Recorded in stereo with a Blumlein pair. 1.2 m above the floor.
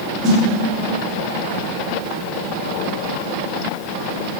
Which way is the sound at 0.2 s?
25° right.